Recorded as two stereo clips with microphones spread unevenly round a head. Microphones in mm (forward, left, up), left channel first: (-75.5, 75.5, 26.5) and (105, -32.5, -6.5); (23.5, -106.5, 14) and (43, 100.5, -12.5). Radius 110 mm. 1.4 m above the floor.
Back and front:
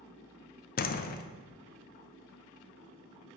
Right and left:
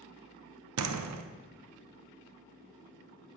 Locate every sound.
0.8 s a door slam: 105° left, 0.6 m